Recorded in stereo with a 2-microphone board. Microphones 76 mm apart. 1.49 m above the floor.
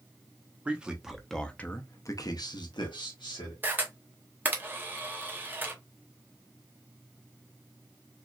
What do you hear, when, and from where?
0.7 s a man speaking: 15° right (ahead or behind), 1.3 m; by 3.5 s 80° left, 1.5 m
3.6 s a camera shutter: 25° right (ahead or behind), 0.9 m